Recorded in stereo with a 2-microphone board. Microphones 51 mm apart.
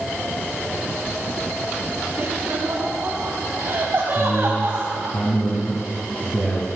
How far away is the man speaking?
About 2.5 m.